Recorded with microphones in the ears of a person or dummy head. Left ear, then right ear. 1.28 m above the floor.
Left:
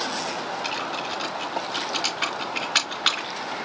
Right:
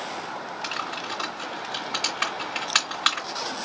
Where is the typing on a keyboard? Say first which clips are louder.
Right 1 dB; 30° right (ahead or behind), 2.5 m.